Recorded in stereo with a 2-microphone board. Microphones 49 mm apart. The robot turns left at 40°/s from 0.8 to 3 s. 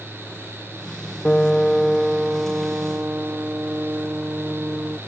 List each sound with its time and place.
1.2 s a piano: 25° left; by 5.0 s 45° right